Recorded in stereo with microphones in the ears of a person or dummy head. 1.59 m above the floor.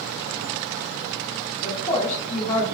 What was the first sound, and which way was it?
A woman speaking, 20° left (ahead or behind).